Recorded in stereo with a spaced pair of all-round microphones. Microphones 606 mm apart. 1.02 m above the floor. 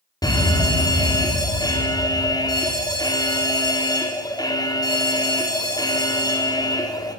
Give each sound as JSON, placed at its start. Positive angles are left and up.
{"t": 0.2, "sound": "a fire alarm", "side_deg": 5, "distance_m": 4.5}